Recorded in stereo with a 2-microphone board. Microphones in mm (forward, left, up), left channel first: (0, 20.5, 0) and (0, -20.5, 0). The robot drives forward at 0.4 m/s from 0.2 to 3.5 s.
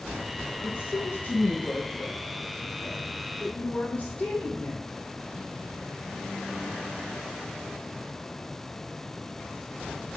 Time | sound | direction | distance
0.6 | a woman speaking | 40° left (ahead or behind) | 1.9 m